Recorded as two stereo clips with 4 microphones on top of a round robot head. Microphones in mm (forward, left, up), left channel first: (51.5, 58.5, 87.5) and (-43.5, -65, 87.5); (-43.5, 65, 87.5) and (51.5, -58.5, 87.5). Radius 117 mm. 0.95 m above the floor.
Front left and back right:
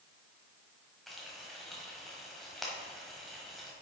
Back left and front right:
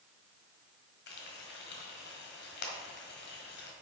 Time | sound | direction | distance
1.1 | frying | 140° left | 1.3 m